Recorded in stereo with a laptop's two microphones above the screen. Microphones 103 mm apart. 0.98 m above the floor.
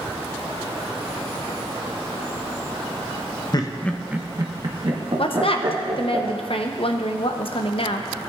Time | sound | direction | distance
3.5 | laughter | 45° left (ahead or behind) | 0.7 m
5.2 | a woman speaking | 65° left (ahead or behind) | 0.7 m